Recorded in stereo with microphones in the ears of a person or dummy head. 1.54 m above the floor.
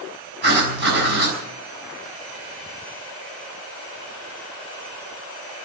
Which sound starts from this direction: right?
Writing, at 0.4 s.